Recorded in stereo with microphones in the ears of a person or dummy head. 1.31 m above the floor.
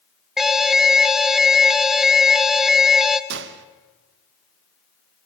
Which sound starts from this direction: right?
A gunshot, at 3.3 s.